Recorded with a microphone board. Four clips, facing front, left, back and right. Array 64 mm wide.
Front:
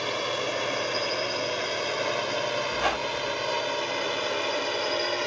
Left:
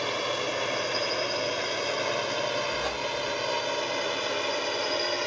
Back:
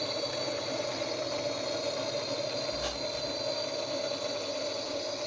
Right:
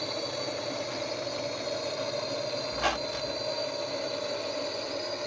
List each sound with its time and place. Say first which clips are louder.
0.0 s a drone: left 5 dB, front 5 dB; 45° left; by 5.3 s 35° left
2.7 s a squeak: even, front 8 dB; 25° right